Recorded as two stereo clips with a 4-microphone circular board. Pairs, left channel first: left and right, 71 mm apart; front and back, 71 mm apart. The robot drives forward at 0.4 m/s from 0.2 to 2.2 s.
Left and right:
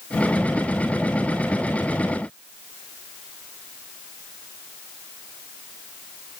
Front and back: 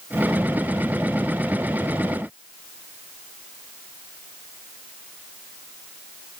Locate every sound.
Only background noise.